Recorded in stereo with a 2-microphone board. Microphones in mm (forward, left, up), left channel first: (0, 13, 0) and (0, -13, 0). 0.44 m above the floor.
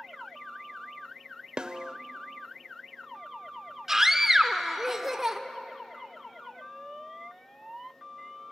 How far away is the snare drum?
About 0.6 m.